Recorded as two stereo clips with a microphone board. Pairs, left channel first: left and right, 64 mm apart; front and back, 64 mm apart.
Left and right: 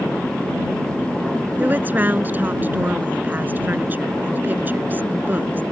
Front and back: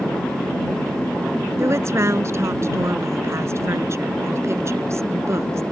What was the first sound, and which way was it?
A woman speaking, 145° right.